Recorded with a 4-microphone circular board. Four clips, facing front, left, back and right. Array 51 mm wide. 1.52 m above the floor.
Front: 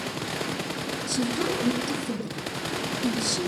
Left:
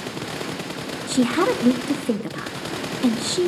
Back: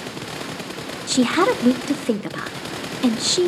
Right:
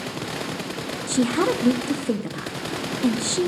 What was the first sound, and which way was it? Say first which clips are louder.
A woman speaking: left 2 dB, back 11 dB; 170° left.